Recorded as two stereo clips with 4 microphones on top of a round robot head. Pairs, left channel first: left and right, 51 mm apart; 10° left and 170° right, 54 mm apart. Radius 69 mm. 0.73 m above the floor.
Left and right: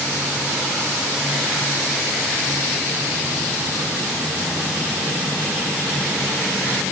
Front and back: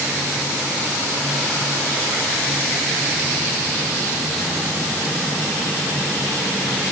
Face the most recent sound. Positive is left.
No sound to turn to.